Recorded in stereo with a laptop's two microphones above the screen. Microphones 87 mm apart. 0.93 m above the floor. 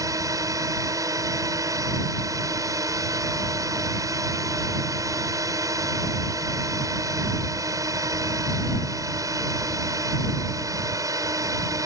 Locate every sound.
0.0 s a drone: 35° right (ahead or behind)